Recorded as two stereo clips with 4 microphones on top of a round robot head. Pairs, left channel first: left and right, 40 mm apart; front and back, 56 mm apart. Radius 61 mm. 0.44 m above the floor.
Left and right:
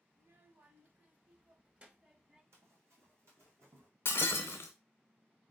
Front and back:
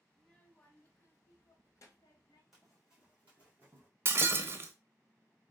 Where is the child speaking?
80° right, 1.1 m; by 2.4 s 20° right, 1.7 m.